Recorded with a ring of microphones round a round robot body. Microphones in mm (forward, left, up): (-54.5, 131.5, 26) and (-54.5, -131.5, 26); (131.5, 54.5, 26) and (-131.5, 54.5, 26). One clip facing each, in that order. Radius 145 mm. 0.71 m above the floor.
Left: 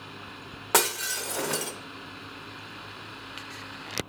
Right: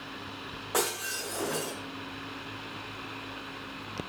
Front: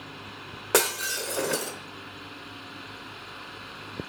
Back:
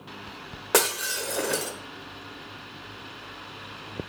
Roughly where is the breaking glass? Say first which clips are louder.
Left 3 dB, even; left.